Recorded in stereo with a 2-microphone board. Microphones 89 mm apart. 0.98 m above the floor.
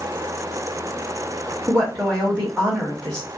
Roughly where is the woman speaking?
Centre.